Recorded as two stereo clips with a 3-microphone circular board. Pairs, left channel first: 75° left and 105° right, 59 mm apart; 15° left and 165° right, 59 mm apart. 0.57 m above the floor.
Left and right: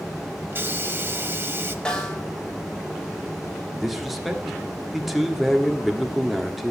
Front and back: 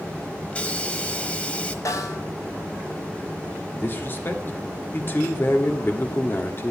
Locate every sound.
0.5 s a hiss: 55° right, 1.0 m
1.9 s a snare drum: 5° left, 2.5 m
3.8 s a man speaking: 20° right, 1.4 m